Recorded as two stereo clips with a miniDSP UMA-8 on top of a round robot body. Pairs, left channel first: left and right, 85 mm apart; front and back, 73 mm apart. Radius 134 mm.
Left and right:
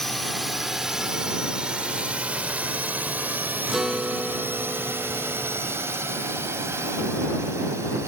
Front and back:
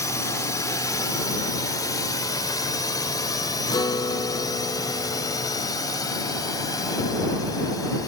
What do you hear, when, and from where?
0.0 s a drone: 5° left; by 8.1 s 35° right
3.7 s a guitar: 5° right